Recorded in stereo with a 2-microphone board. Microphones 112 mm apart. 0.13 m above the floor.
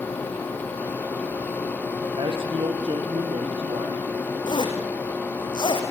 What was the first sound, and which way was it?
A man speaking, 50° right (ahead or behind).